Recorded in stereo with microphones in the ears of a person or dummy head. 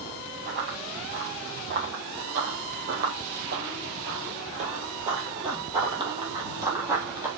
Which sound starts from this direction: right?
Running footsteps, at 0.5 s.